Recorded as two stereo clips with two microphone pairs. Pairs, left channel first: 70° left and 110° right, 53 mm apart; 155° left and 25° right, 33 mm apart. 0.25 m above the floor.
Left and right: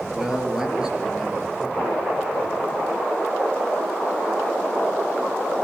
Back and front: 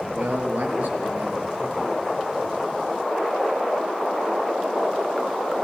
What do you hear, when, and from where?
0.1 s a man speaking: 30° right, 4.5 m; by 2.0 s 40° right, 5 m